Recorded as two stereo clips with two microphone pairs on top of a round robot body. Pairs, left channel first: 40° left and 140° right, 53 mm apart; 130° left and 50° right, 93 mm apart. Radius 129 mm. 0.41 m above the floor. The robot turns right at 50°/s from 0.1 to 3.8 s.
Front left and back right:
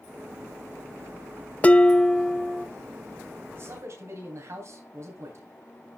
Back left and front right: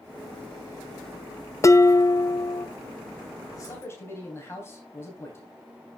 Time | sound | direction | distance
1.6 | dishes clattering | 95° left | 0.7 m
3.5 | a man speaking | straight behind | 3.5 m